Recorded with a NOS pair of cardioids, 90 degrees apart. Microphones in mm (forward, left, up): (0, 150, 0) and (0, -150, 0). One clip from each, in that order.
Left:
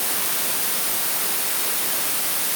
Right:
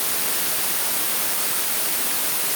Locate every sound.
Only background noise.